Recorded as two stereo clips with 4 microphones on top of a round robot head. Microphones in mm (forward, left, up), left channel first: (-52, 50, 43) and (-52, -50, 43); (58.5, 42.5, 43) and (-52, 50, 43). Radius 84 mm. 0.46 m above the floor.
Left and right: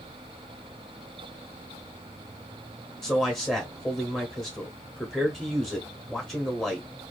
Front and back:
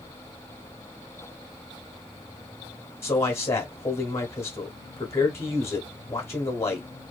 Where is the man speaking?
15° left, 0.8 m.